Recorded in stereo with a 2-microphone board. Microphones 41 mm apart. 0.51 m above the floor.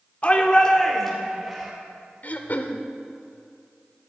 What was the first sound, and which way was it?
A shout, 35° left (ahead or behind).